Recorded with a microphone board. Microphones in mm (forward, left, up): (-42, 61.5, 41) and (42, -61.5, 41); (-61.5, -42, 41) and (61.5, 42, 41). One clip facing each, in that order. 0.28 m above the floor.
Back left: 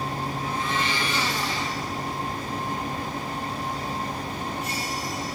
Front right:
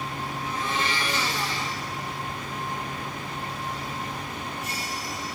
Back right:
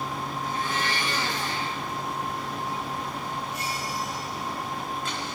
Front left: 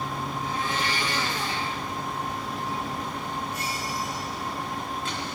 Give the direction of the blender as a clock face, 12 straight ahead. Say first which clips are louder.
Even, even; 6 o'clock.